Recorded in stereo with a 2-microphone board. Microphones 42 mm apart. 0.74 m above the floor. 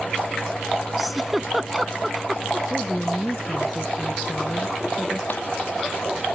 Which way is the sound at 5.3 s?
55° left (ahead or behind).